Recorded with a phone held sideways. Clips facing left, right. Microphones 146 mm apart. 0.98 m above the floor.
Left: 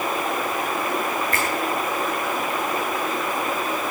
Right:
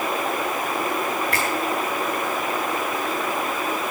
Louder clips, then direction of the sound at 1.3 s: Even; 75° right (ahead or behind).